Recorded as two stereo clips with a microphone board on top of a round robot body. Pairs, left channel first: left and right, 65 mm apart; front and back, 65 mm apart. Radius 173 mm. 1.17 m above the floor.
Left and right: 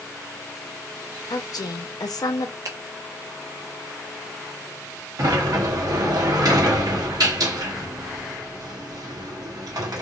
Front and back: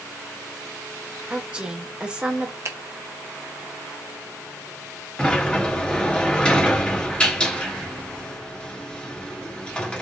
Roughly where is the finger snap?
Behind right.